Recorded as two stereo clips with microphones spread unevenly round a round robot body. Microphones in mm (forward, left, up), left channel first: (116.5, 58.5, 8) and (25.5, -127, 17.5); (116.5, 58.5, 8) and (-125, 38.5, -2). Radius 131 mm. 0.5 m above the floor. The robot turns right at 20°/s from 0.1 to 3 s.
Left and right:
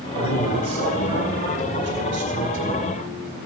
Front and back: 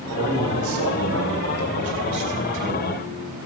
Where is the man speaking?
170° left, 2.5 m; by 2.9 s 135° right, 2.5 m.